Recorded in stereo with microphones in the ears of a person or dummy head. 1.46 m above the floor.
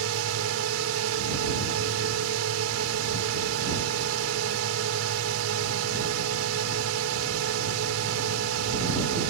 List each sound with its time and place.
0.0 s a drone: 80° right